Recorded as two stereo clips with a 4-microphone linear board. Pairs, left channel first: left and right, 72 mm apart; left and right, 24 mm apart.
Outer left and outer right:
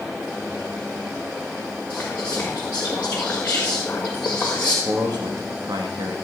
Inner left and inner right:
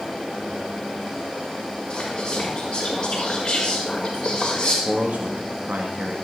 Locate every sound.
1.9 s whispering: 20° left (ahead or behind), 1.7 m
4.8 s a man speaking: 75° right (ahead or behind), 1.7 m